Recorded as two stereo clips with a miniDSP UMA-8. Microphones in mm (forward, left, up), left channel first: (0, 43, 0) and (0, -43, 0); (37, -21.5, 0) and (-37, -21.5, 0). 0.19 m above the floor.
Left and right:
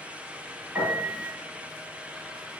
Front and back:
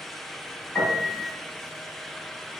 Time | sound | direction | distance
0.8 | a piano | 65° right | 1.7 m